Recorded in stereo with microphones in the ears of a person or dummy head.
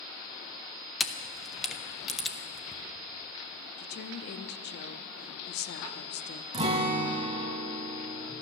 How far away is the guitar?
About 1.3 m.